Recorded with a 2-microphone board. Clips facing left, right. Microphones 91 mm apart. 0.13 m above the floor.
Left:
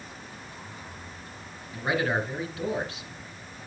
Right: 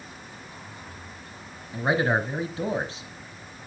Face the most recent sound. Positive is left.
turn(degrees=-30)  # may be behind; listen again after turning